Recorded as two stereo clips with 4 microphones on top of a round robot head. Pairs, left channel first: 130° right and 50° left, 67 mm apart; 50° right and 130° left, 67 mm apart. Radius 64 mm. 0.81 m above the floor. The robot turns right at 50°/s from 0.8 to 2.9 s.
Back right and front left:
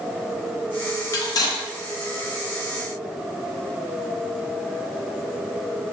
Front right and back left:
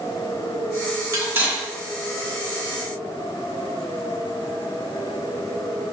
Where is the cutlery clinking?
Straight behind, 1.0 m; by 1.6 s 155° right, 1.0 m.